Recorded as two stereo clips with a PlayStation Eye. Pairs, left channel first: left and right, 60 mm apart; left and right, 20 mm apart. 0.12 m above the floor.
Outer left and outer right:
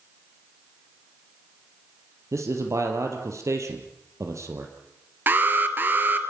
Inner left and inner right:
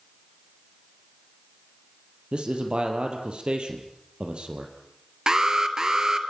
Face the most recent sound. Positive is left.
turn(degrees=-35)  # may be behind; listen again after turning